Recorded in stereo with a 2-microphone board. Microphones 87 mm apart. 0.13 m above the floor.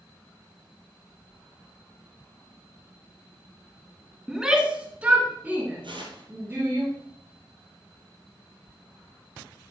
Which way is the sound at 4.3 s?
5° right (ahead or behind).